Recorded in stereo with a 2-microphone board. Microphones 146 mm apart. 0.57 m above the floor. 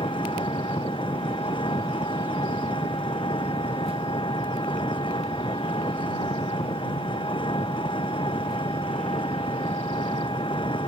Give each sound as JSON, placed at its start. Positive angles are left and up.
{"t": 0.0, "sound": "an engine running", "side_deg": 35}